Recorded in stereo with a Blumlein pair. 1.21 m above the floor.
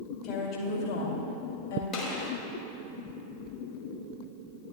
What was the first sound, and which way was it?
A woman speaking, 40° left.